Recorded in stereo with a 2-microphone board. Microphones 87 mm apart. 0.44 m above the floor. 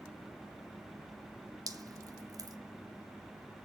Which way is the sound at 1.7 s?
45° right (ahead or behind).